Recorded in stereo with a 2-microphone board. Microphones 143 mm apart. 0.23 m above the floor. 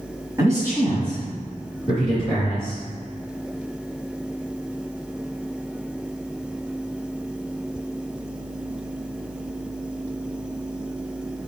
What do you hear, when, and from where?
0.4 s a man speaking: 20° right (ahead or behind), 1.8 m; by 2.8 s 5° left (ahead or behind), 3 m